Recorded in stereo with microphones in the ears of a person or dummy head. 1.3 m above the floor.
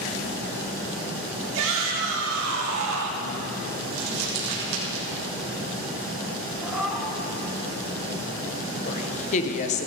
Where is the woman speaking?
45° left (ahead or behind), 1.0 m.